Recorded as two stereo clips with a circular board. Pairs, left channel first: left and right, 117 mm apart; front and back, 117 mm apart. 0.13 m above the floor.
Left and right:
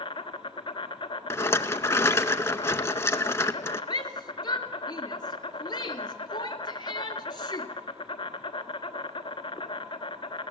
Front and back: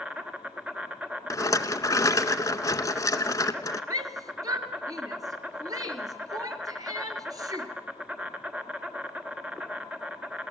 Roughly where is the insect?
Left.